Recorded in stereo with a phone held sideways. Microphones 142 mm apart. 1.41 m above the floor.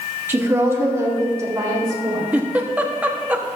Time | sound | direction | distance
0.3 | a woman speaking | 15° right (ahead or behind) | 1.9 m
2.3 | a giggle | 10° right (ahead or behind) | 1.1 m